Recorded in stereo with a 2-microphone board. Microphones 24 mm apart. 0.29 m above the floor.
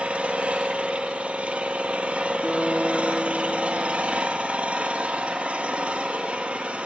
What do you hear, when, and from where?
0.0 s an engine running: 60° right (ahead or behind), 2 m
2.4 s a guitar: 15° left (ahead or behind), 6 m